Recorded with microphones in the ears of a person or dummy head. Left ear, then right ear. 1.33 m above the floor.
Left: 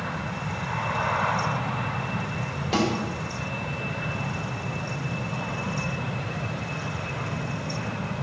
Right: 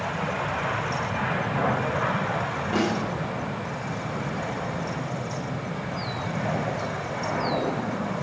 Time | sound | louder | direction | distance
2.7 | a snare drum | left 2 dB | 50° left (ahead or behind) | 6 m